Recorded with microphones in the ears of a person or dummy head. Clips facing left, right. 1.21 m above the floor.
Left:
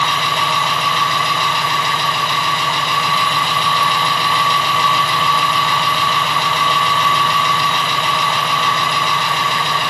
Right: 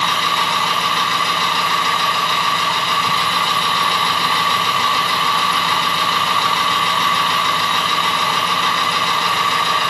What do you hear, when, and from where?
0.0 s an engine running: 25° left (ahead or behind), 0.8 m